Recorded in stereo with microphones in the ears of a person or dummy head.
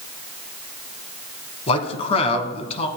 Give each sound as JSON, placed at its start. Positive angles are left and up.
{"t": 1.7, "sound": "a man speaking", "side_deg": 35, "distance_m": 1.5}